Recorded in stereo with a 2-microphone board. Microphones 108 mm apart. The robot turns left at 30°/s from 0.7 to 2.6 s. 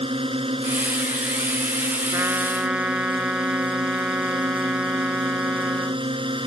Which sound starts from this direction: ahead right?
A drone, at 0.0 s.